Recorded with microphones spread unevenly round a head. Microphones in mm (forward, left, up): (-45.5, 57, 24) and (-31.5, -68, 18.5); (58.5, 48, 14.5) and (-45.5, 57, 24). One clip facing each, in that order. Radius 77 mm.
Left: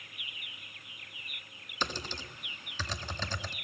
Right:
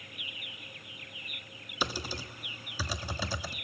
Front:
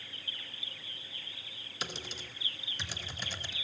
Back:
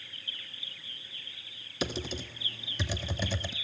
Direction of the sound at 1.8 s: 165° right.